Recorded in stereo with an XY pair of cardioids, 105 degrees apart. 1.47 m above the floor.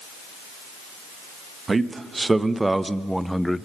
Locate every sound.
1.7 s a man speaking: 25° right, 2 m; by 3.7 s 15° left, 0.9 m